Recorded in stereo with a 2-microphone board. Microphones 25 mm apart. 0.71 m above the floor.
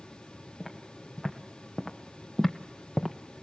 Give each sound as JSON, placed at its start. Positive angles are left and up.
{"t": 0.6, "sound": "footsteps", "side_deg": 5, "distance_m": 3.0}